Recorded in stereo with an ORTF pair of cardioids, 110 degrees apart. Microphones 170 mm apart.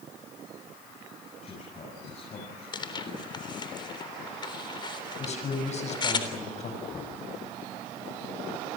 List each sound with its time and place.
1.4 s a man speaking: 40° left, 7.5 m
2.7 s tearing paper: 30° left, 3.5 m
5.2 s a man speaking: 40° left, 6.5 m
6.9 s knocking: 20° left, 7.5 m